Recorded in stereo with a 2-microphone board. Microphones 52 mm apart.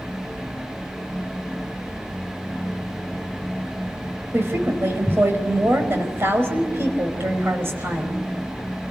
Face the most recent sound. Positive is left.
turn(degrees=-50)  # may be behind; listen again after turning